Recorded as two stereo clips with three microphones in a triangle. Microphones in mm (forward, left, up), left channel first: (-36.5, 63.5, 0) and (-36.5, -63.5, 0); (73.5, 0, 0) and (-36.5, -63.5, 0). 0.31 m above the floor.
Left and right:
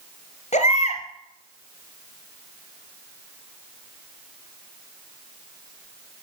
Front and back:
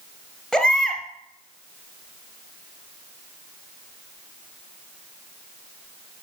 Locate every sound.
0.5 s a baby crying: 120° left, 2 m